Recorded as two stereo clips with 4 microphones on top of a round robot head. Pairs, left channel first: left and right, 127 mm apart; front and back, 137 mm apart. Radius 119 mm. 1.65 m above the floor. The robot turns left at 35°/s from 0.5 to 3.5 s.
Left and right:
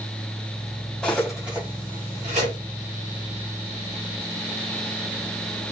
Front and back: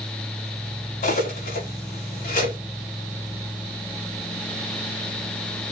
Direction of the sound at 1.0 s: 5° left.